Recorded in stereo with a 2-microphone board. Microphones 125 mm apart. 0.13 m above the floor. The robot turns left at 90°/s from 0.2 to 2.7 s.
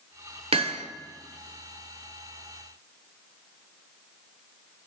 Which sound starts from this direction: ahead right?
Hammering, at 0.5 s.